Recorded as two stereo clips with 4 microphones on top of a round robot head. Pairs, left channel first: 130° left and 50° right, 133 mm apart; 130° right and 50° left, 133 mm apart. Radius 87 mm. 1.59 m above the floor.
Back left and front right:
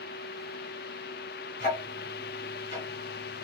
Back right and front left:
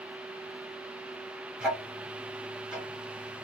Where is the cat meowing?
I don't hear a cat meowing.